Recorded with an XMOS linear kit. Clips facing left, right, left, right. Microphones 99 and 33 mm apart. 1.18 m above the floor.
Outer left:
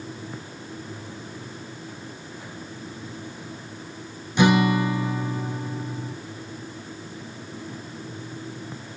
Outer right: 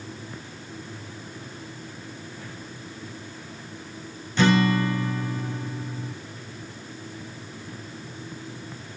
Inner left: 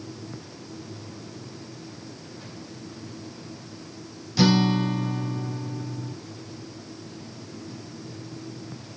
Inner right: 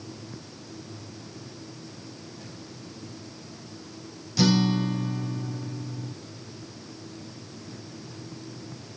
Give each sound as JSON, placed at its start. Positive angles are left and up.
{"t": 4.4, "sound": "a guitar", "side_deg": 15, "distance_m": 0.6}